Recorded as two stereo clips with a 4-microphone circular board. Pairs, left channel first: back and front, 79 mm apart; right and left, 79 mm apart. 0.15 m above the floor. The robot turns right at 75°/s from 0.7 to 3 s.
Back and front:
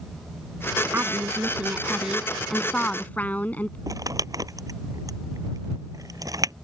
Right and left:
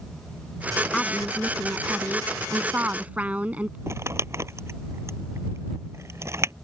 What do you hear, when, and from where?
0.9 s a woman speaking: 15° right; by 3.8 s 140° left
3.9 s crumpling: 40° left